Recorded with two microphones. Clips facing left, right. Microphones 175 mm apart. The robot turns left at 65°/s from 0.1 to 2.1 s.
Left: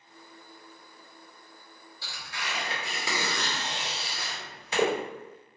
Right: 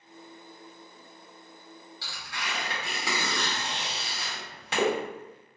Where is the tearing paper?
80° right, 1.2 m; by 4.9 s 75° right (ahead or behind), 1.2 m.